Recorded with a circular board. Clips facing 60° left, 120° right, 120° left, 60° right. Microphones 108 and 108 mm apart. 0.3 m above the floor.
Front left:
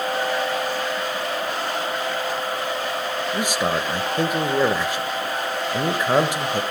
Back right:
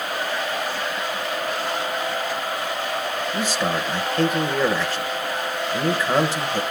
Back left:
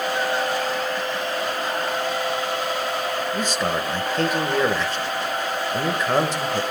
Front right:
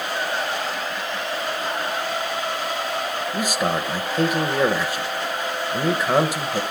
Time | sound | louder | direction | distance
3.3 | a man speaking | front left 1 dB, front right 4 dB | 5° left | 0.9 m